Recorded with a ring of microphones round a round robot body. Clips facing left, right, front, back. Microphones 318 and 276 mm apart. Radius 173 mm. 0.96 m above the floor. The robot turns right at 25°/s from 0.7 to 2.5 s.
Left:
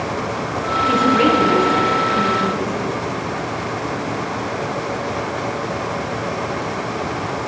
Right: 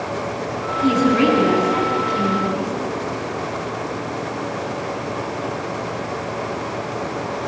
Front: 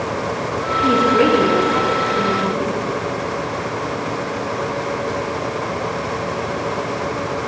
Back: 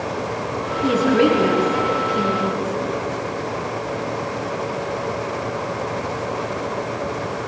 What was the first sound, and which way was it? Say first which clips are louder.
A woman speaking: right 1 dB, even; 95° right.